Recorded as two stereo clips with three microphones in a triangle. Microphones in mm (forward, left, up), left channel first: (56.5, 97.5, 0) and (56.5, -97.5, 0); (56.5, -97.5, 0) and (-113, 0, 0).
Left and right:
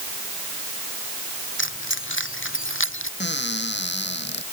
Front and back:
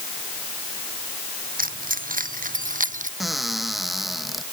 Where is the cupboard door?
60° left.